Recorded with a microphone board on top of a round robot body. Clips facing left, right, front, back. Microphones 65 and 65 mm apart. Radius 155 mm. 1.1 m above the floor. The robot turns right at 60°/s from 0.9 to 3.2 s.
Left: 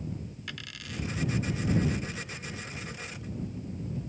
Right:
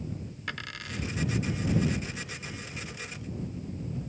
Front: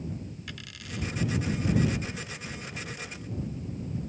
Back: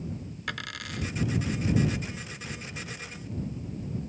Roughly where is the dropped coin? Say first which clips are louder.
Right 8 dB, back 6 dB; behind right.